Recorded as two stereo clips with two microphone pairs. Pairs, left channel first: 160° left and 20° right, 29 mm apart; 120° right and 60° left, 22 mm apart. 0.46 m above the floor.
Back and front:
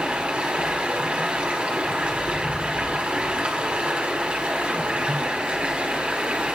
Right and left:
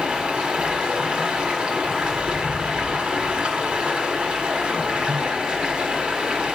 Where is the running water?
25° left, 1.5 m.